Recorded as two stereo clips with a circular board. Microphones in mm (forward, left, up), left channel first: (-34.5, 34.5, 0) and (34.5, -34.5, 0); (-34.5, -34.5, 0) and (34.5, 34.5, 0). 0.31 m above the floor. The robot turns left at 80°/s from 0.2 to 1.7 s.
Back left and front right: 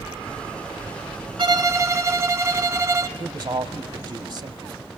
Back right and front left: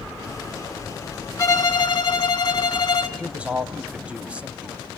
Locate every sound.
1.4 s a violin: 75° right, 1.2 m; by 3.1 s 100° right, 1.2 m
3.2 s a man speaking: 30° right, 1.5 m